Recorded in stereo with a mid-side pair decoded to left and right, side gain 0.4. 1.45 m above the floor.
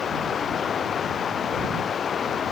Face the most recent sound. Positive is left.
turn(degrees=50)